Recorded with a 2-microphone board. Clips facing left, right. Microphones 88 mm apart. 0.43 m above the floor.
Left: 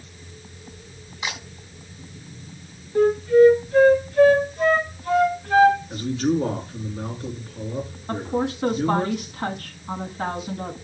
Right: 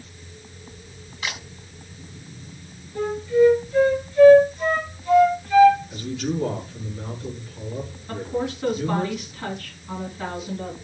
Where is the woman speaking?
45° left (ahead or behind), 3 m.